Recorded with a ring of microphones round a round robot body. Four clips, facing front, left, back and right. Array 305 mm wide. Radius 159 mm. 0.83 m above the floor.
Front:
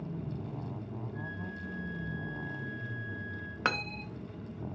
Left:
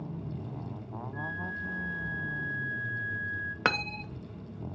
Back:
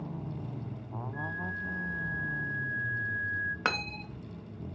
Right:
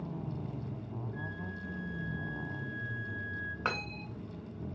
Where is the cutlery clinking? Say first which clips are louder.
Left 7 dB, even; 85° left, 0.7 m.